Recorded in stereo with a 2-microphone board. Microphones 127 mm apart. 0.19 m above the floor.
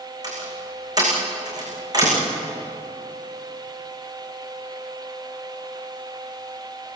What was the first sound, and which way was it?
A door slam, 30° right (ahead or behind).